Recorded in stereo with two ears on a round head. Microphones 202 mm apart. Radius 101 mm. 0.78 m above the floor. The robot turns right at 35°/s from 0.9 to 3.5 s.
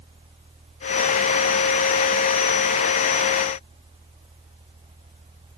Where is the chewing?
I don't hear chewing.